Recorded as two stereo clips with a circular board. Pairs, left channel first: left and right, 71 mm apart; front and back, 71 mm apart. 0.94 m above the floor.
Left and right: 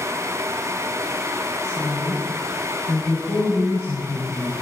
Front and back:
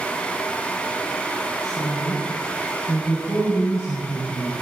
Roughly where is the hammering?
No hammering in this recording.